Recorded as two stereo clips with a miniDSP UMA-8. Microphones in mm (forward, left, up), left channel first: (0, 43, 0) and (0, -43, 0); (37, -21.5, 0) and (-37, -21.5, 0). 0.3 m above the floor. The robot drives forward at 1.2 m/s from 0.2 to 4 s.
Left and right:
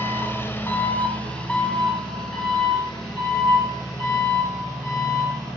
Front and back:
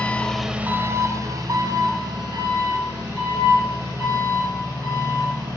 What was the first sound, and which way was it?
An engine running, 55° left.